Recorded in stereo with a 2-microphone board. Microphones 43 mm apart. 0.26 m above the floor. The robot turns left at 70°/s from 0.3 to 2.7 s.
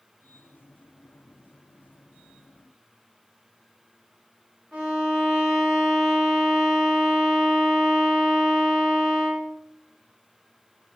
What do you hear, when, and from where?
4.7 s a violin: 10° right (ahead or behind), 1.4 m